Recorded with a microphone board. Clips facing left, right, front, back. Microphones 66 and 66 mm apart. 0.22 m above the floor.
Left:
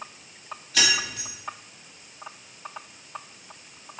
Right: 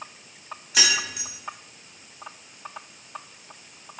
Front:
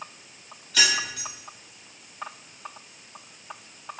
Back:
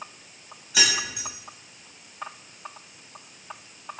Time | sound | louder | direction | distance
0.7 | keys jangling | even, front 1 dB | 130° right | 0.8 m